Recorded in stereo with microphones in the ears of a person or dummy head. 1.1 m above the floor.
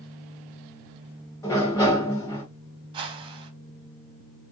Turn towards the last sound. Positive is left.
turn(degrees=-25)  # may be behind; listen again after turning